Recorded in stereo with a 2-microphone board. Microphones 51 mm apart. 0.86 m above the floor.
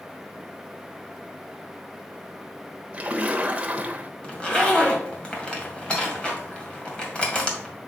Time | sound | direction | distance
2.9 | a splash | 25° right (ahead or behind) | 1.0 m
4.2 | a zipper | 20° left (ahead or behind) | 1.9 m